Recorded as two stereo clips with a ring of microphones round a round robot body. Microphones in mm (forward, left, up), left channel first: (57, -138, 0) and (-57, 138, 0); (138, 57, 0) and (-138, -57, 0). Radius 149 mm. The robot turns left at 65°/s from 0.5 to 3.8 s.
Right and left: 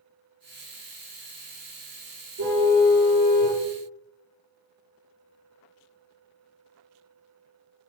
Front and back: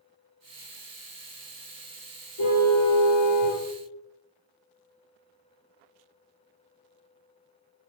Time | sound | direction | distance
2.4 | a car horn | 65° left | 8.5 m